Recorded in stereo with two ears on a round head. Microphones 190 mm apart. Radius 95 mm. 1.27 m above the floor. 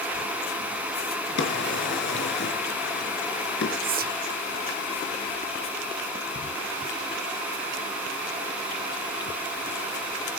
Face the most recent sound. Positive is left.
turn(degrees=-45)  # may be behind; listen again after turning